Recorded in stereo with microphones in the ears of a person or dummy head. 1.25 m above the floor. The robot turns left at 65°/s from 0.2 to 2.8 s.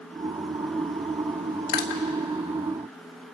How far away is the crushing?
About 2.5 m.